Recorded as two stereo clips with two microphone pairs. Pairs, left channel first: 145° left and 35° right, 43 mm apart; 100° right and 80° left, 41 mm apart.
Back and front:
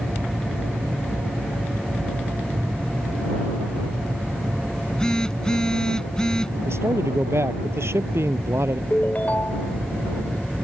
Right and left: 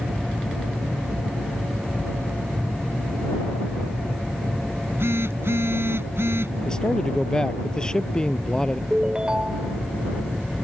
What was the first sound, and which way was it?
A phone buzzing, 75° left.